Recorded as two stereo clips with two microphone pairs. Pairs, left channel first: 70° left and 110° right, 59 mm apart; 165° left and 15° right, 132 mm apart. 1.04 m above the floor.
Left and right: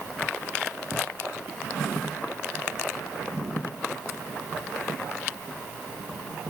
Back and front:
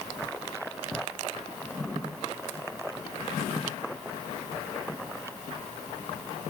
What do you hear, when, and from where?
Only background noise.